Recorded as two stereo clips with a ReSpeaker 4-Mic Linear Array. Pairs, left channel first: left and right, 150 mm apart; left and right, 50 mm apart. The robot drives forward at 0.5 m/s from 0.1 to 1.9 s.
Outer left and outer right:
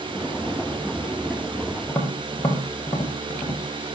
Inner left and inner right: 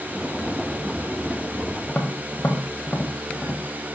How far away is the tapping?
About 5 m.